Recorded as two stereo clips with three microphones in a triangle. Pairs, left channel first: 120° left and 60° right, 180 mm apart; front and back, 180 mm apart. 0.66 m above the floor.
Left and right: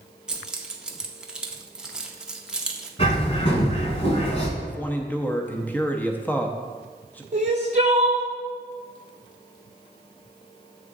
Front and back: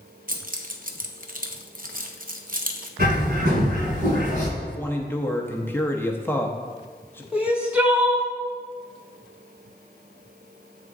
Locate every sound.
0.3 s keys jangling: 145° right, 0.6 m
3.0 s a bird: 170° left, 1.1 m
4.6 s a man speaking: 55° left, 0.6 m
7.3 s crying: 100° right, 0.9 m